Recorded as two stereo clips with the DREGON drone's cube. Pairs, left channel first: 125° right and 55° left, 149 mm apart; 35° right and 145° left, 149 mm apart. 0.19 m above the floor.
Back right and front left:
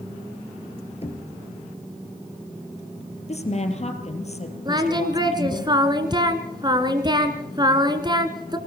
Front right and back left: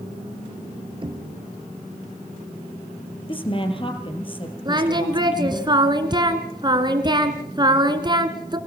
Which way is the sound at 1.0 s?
165° right.